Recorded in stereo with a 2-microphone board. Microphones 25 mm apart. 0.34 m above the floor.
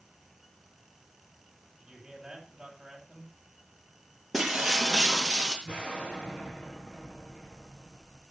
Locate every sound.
1.8 s a man speaking: 20° right (ahead or behind), 9.5 m
4.3 s breaking glass: 5° right (ahead or behind), 5 m
5.7 s an explosion: 60° left (ahead or behind), 6.5 m